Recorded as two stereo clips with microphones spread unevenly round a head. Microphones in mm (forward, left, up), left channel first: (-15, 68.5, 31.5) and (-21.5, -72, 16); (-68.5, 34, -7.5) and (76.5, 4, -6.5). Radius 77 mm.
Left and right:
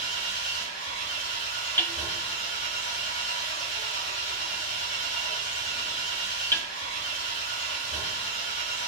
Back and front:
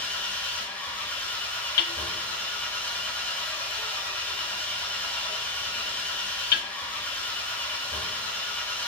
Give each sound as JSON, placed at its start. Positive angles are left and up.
{"t": 0.0, "sound": "an engine running", "azimuth_deg": 90, "distance_m": 1.8}
{"t": 1.8, "sound": "hammering", "azimuth_deg": 160, "distance_m": 0.5}